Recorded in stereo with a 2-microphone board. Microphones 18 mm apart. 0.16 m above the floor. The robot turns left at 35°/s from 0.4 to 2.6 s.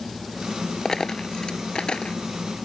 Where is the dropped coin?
30° left (ahead or behind); by 2.1 s 70° left (ahead or behind).